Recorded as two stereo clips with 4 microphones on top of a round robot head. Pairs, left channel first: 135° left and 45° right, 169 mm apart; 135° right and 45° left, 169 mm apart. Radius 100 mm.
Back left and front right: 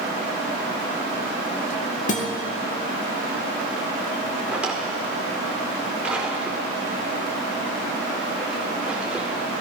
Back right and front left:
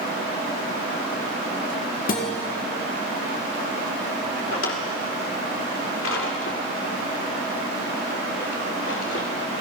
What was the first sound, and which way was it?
A guitar, 175° right.